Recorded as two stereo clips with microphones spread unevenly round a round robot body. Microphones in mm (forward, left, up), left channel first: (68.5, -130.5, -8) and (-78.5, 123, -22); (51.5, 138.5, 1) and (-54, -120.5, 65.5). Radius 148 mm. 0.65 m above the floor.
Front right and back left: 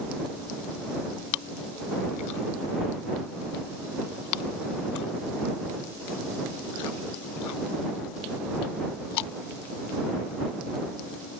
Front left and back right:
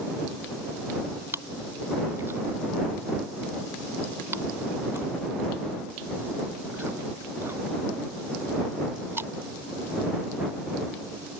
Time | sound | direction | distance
1.3 | chewing | 35° right | ?